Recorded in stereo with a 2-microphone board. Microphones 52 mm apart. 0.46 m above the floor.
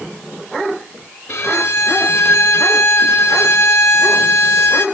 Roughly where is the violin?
Left.